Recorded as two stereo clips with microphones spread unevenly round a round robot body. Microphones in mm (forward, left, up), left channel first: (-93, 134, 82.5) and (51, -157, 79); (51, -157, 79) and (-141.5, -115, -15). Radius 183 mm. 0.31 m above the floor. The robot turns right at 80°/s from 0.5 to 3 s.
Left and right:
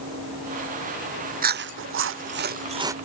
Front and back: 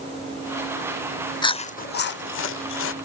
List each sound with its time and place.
1.4 s chewing: 110° right; by 3.0 s 15° left